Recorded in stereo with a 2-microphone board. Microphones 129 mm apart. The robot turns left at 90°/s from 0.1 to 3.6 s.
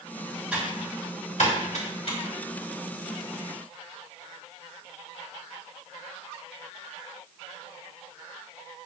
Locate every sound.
0.5 s typing on a keyboard: 10° right (ahead or behind), 3 m; by 2.2 s 35° left (ahead or behind), 3 m